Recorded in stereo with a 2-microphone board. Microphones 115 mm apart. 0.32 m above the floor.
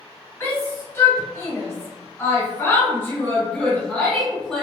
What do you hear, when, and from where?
0.4 s a shout: 25° left (ahead or behind), 1.6 m; by 4.7 s 5° left (ahead or behind), 1.2 m